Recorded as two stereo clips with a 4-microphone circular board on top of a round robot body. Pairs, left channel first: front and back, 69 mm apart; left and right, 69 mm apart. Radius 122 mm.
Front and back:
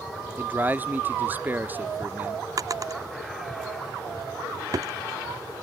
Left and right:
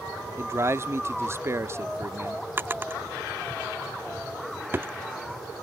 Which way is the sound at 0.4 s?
125° right.